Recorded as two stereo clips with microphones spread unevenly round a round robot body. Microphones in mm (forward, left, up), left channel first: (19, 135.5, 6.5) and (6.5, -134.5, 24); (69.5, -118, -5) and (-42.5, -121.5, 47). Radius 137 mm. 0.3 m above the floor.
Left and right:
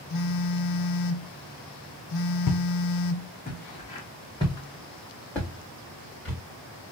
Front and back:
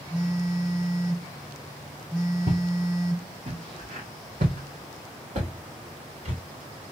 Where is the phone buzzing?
85° left, 0.6 m.